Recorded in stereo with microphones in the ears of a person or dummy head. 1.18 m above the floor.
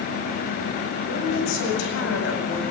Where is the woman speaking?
85° left, 8 m.